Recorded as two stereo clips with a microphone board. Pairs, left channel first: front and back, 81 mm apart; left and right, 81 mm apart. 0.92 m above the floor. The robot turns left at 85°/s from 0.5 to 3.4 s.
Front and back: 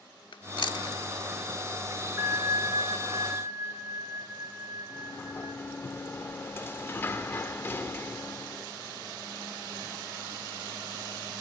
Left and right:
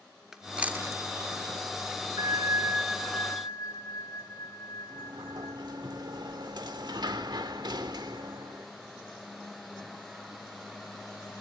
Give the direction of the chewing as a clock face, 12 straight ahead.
12 o'clock.